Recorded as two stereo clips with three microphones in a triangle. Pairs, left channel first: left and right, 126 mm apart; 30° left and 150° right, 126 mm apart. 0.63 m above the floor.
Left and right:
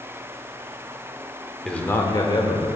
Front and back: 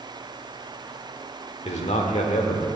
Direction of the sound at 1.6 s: 5° left.